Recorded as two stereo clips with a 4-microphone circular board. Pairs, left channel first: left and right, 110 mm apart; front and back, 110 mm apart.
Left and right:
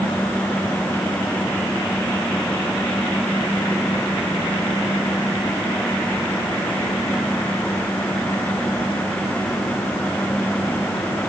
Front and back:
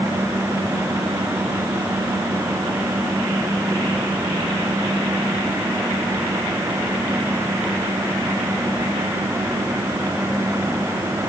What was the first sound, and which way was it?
Only background noise.